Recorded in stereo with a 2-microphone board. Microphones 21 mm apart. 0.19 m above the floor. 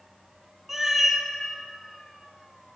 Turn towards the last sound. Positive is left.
turn(degrees=-20)  # may be behind; listen again after turning